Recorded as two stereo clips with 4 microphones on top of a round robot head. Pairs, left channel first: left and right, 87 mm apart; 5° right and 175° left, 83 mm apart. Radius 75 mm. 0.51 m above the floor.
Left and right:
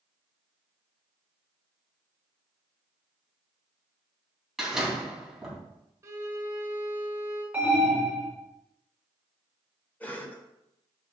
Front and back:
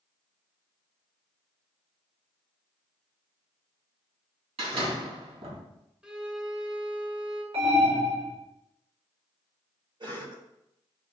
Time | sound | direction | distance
4.6 | a door slam | 175° right | 3 m
6.0 | a violin | 110° right | 1.5 m
7.5 | an alarm | 155° right | 4 m
10.0 | a cough | 160° left | 2.0 m